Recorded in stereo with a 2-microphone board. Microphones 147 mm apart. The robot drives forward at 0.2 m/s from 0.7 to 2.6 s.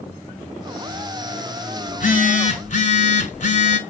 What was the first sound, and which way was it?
A phone buzzing, 60° left (ahead or behind).